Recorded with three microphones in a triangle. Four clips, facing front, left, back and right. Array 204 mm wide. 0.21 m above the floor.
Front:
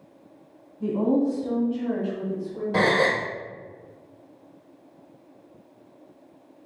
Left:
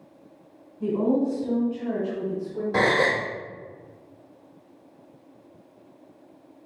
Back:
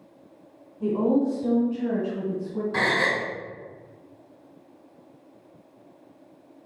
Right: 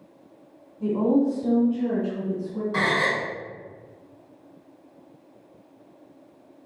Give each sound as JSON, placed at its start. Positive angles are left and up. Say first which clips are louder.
{"t": 0.8, "sound": "a woman speaking", "louder": "right 2 dB, even", "azimuth_deg": -150, "distance_m": 1.1}
{"t": 2.7, "sound": "a gasp", "louder": "left 3 dB, front 5 dB", "azimuth_deg": 45, "distance_m": 1.1}